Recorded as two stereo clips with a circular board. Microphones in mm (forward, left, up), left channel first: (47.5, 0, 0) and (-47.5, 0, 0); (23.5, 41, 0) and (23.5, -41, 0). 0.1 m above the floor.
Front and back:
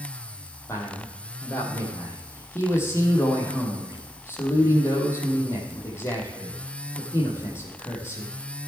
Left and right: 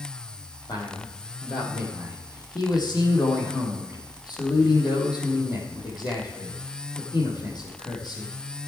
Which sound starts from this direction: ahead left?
A man speaking, at 0.7 s.